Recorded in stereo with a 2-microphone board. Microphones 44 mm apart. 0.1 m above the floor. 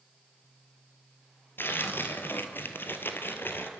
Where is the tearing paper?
55° left (ahead or behind), 2.5 m.